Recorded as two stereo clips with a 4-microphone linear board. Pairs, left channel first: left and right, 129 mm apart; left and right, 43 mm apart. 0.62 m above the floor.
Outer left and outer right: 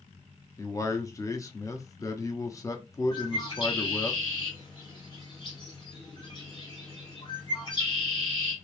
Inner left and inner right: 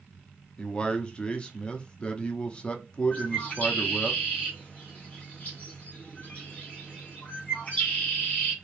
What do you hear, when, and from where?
0.6 s a man speaking: 25° left (ahead or behind), 0.7 m
3.1 s a bird: 35° left (ahead or behind), 1.7 m